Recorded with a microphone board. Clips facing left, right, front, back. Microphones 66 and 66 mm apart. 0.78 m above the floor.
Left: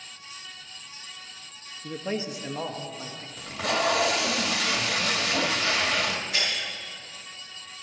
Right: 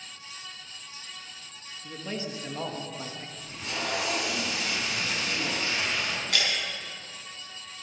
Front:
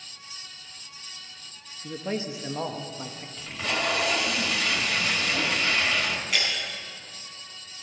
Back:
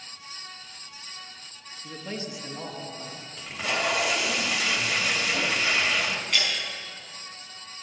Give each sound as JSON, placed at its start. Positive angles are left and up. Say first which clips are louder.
{"t": 1.8, "sound": "a man speaking", "louder": "left 5 dB, front 5 dB", "azimuth_deg": 55, "distance_m": 1.1}
{"t": 3.4, "sound": "tape being pulled", "louder": "left 10 dB, back 1 dB", "azimuth_deg": 100, "distance_m": 1.6}
{"t": 6.3, "sound": "breaking glass", "louder": "right 1 dB, even", "azimuth_deg": -85, "distance_m": 4.5}